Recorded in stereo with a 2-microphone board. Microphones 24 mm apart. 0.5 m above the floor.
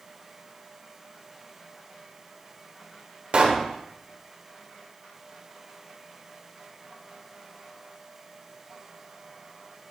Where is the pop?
50° right (ahead or behind), 1.1 m.